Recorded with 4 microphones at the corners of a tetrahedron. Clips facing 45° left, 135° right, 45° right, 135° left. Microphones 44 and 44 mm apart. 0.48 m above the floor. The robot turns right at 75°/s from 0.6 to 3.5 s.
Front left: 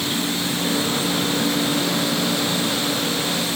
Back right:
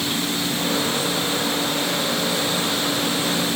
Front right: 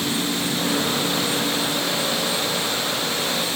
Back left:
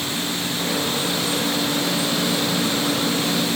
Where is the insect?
45° right, 3.5 m; by 3.6 s 175° left, 3.5 m.